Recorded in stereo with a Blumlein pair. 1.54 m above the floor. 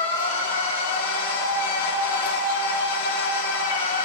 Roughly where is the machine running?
Ahead left.